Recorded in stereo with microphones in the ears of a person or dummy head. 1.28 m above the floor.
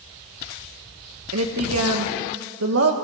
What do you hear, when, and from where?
1.3 s a woman speaking: 75° right (ahead or behind), 1.6 m